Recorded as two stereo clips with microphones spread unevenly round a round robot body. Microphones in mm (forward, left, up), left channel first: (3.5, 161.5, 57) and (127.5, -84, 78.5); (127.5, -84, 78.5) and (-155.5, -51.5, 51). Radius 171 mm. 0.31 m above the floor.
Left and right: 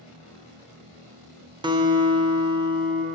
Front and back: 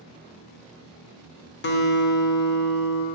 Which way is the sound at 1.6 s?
5° left.